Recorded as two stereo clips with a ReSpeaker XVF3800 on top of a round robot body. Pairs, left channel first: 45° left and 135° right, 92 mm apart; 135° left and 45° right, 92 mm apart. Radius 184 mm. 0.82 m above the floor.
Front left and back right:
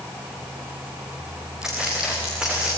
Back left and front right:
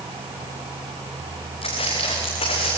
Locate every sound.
1.6 s footsteps: 145° left, 5 m